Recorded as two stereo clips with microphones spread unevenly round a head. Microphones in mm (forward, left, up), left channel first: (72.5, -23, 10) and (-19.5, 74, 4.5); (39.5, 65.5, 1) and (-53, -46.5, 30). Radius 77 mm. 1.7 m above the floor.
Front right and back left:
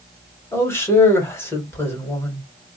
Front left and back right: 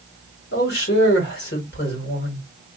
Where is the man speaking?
25° left, 1.5 m.